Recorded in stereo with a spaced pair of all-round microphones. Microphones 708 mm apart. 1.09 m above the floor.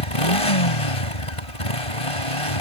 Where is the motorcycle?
45° left (ahead or behind).